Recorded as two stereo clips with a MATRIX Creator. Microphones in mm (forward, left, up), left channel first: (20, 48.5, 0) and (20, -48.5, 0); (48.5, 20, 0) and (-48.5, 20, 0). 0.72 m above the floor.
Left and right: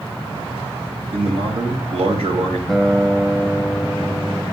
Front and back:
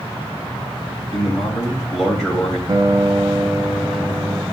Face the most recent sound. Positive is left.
turn(degrees=175)